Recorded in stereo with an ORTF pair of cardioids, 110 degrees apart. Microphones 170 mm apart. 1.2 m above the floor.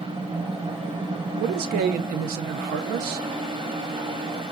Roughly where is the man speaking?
Ahead right.